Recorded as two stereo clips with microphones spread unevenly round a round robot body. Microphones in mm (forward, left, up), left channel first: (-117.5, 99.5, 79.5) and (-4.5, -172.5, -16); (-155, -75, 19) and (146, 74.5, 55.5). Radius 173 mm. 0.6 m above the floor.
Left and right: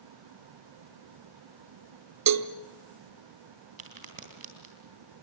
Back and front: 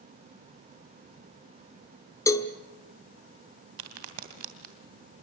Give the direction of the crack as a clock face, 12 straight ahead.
12 o'clock.